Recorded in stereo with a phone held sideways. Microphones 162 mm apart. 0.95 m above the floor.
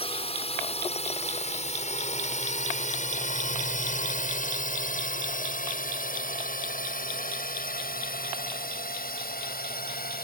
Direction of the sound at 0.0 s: 35° left (ahead or behind).